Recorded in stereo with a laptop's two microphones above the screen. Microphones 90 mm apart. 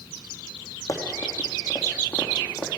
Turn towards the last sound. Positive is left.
turn(degrees=20)  # may be behind; listen again after turning